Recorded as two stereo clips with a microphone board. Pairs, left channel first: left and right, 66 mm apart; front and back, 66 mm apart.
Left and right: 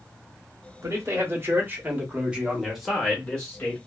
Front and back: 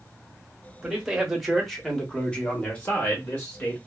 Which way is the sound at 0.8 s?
105° right.